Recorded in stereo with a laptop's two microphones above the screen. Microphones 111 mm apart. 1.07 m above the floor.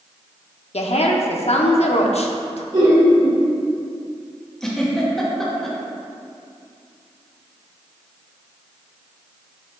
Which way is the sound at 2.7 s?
65° right (ahead or behind).